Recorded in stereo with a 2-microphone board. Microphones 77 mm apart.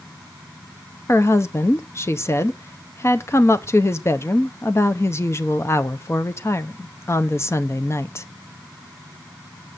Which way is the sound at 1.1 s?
35° left (ahead or behind).